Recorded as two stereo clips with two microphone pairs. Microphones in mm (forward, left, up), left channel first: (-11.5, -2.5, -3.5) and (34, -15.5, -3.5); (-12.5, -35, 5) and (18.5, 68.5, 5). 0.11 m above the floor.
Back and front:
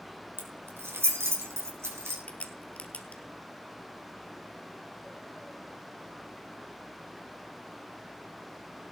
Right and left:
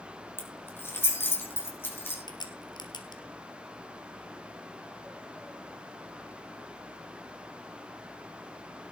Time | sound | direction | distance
0.4 | keys jangling | 40° right | 3 m
2.3 | a crack | 145° right | 1.8 m